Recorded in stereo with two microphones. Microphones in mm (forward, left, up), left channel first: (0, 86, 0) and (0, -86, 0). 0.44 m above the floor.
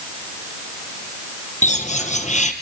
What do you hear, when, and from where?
1.6 s a bird: 45° left (ahead or behind), 3 m